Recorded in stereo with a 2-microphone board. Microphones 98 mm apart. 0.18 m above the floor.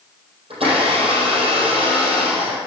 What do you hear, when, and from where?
0.5 s a blender: 75° right (ahead or behind), 4 m